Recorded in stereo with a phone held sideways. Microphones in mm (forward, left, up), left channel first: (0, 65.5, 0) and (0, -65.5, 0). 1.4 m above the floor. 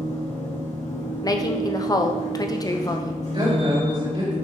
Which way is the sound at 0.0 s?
55° left (ahead or behind).